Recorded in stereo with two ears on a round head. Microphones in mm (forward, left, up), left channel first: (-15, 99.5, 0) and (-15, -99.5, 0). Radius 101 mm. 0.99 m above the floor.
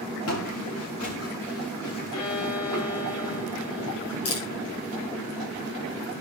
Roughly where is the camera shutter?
Left.